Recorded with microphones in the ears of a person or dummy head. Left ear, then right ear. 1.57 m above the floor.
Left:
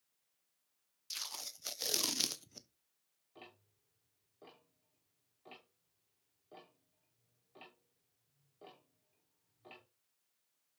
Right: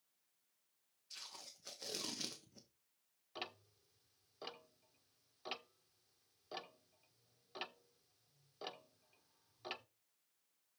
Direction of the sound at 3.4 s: 55° right (ahead or behind).